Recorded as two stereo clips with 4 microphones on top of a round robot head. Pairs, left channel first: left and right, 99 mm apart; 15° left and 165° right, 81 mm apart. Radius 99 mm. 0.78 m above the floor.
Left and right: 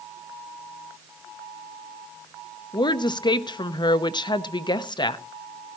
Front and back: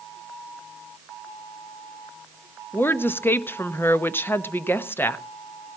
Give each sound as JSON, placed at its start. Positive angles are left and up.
{"t": 2.7, "sound": "a woman speaking", "azimuth_deg": 70, "distance_m": 1.0}